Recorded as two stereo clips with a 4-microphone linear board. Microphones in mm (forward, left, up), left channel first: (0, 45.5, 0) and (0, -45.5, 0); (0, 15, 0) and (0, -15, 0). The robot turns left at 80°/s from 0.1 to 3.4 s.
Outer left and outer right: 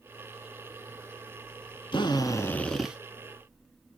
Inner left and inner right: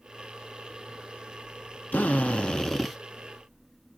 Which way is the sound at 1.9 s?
70° left.